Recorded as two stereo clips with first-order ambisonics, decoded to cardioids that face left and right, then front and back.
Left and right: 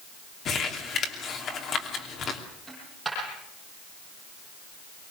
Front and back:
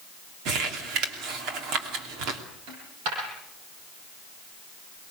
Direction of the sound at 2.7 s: 175° right.